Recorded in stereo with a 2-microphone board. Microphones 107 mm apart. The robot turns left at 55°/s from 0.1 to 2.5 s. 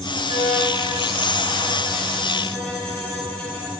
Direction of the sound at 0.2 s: 75° right.